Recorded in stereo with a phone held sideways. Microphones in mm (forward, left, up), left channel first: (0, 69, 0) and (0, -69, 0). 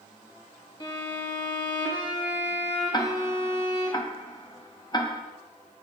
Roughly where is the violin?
Left.